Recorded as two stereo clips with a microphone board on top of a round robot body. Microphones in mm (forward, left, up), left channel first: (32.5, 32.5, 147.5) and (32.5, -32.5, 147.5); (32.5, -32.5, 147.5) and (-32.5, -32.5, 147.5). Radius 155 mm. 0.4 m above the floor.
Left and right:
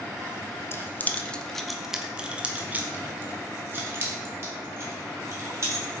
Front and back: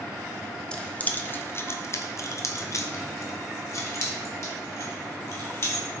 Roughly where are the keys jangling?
Left.